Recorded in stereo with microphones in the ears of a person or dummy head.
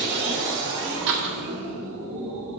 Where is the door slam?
60° right (ahead or behind), 0.7 m.